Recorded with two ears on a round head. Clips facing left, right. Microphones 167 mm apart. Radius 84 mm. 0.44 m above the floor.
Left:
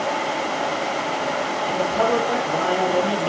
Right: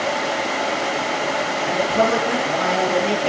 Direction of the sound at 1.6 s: 85° right.